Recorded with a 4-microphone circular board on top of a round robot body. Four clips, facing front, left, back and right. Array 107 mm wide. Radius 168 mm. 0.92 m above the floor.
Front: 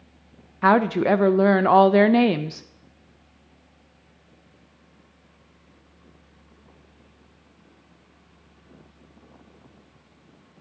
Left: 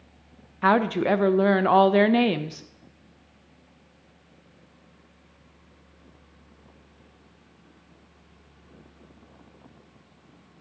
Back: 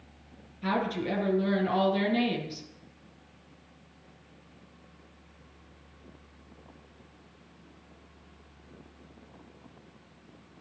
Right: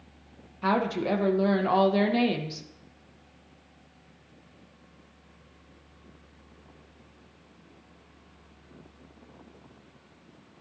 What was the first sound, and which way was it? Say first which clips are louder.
A woman speaking: left 5 dB, front 12 dB; 20° left.